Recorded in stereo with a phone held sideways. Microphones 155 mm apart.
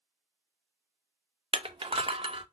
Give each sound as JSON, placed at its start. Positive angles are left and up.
{"t": 1.5, "sound": "crushing", "side_deg": -40, "distance_m": 0.5}